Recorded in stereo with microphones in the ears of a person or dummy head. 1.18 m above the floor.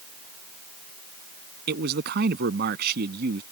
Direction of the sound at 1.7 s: 55° right (ahead or behind).